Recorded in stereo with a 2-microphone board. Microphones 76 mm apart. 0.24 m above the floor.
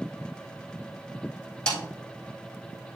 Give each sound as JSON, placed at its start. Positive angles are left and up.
{"t": 1.7, "sound": "a snare drum", "side_deg": 10, "distance_m": 2.5}